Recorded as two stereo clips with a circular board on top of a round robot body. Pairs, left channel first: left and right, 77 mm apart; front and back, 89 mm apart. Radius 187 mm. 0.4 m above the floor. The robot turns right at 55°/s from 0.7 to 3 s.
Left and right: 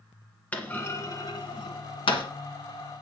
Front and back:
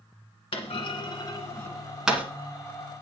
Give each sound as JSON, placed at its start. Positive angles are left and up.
{"t": 0.5, "sound": "a clunk", "azimuth_deg": 20, "distance_m": 1.7}